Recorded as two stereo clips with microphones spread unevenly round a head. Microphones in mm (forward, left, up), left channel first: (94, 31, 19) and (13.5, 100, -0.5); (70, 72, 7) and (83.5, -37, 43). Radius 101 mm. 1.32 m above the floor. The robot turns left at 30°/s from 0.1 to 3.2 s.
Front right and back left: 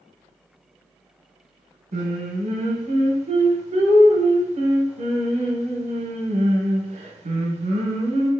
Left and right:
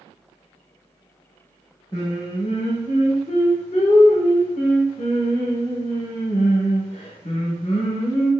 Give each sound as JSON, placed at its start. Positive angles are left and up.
{"t": 1.9, "sound": "singing", "azimuth_deg": 170, "distance_m": 0.6}